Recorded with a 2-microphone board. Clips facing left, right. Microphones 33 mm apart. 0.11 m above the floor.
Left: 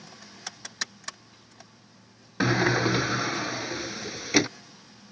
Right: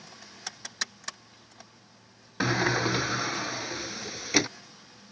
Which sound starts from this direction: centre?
A sliding door, at 2.4 s.